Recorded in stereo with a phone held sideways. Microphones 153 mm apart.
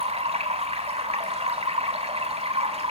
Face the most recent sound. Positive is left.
turn(degrees=-40)  # may be behind; listen again after turning